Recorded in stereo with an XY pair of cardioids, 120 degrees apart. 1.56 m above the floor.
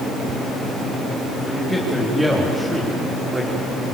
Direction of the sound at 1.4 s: 10° left.